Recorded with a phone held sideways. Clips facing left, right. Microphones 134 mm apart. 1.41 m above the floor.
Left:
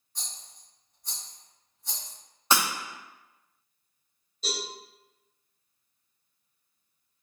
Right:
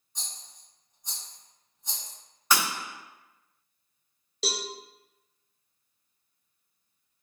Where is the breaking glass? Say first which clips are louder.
Left 1 dB; 25° left (ahead or behind), 0.6 m.